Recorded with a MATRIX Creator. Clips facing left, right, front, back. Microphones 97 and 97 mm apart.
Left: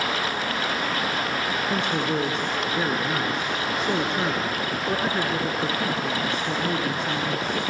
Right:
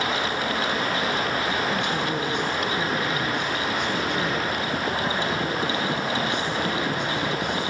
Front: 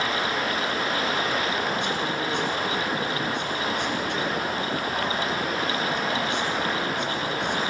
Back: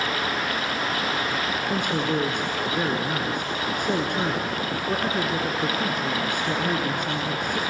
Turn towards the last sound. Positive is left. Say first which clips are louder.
# left 1 dB, back 2 dB
turn(degrees=140)